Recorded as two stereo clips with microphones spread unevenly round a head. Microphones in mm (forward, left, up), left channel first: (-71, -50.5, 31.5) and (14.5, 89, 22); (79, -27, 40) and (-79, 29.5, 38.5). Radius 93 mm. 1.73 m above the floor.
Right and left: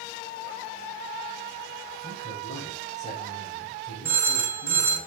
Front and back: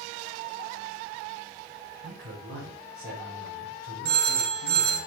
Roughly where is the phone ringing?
Behind left.